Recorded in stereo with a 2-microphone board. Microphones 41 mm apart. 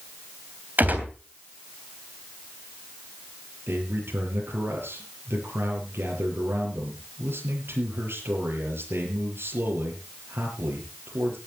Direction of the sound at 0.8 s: 45° right (ahead or behind).